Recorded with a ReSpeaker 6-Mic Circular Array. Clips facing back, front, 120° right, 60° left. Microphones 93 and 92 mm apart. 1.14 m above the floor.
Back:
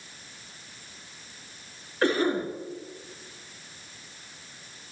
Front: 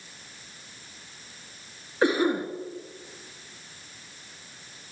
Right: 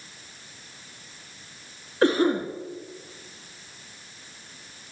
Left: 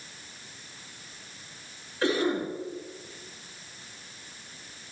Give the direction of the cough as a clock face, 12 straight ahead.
2 o'clock.